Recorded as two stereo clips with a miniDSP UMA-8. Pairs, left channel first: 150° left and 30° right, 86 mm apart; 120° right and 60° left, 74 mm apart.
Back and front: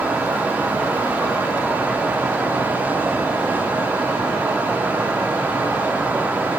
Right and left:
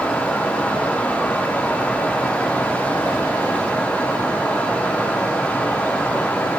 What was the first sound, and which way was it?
Only background noise.